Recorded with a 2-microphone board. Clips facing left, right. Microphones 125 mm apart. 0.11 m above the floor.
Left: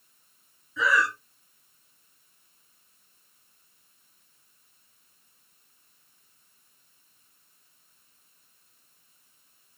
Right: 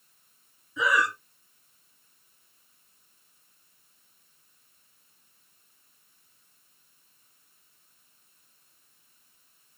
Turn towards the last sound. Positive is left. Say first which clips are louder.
# even
turn(degrees=-20)  # may be behind; listen again after turning